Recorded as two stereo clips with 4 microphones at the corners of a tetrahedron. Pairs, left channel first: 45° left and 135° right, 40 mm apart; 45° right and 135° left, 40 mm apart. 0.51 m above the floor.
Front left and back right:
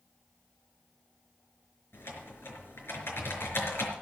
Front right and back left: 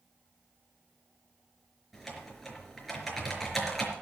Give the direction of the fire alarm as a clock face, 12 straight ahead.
No fire alarm in this recording.